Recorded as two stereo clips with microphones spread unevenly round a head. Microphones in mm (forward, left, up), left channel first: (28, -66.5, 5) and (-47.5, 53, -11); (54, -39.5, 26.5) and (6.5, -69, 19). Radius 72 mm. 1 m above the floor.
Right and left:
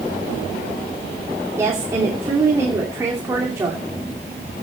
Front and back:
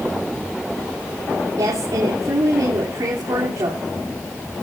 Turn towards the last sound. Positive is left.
turn(degrees=-170)